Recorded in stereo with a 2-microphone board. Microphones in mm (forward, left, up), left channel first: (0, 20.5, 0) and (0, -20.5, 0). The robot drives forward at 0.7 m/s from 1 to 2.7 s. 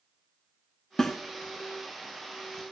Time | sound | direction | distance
1.0 | a snare drum | 15° left (ahead or behind) | 0.9 m